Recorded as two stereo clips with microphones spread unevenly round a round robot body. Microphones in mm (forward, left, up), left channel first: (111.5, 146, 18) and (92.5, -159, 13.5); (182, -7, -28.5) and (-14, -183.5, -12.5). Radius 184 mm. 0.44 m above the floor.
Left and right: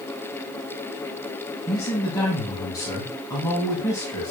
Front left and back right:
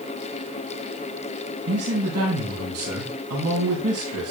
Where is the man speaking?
170° left, 3.5 m.